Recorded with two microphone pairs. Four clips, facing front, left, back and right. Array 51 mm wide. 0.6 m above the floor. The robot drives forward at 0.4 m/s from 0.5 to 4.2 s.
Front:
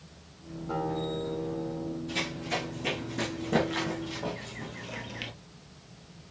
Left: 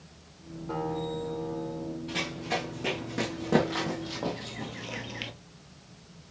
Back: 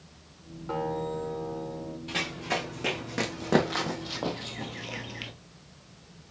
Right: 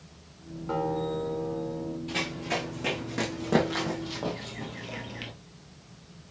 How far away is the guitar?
About 1.5 m.